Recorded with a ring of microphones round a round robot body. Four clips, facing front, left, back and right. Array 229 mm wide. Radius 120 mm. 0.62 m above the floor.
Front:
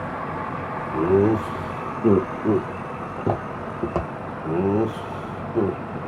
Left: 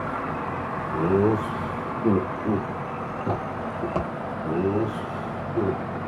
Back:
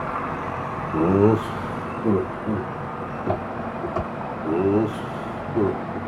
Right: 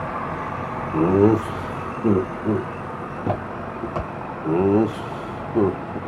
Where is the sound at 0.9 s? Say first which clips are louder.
Right 5 dB, back 1 dB; 140° right, 0.9 m; by 2.7 s straight ahead, 1.0 m.